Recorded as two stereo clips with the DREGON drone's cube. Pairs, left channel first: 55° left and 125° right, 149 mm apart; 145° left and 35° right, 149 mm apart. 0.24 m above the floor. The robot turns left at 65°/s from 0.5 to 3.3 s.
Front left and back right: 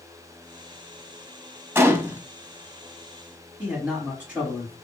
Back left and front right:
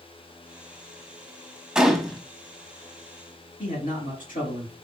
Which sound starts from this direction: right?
A gunshot, at 1.8 s.